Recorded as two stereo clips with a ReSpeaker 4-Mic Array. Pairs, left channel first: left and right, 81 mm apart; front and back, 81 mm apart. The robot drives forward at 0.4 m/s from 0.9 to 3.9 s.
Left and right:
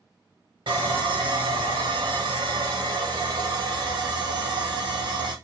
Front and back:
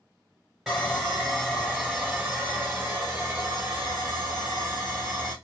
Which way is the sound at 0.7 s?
90° right.